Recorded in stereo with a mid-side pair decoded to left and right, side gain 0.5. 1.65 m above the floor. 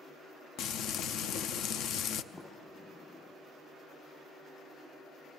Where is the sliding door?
25° left, 7 m.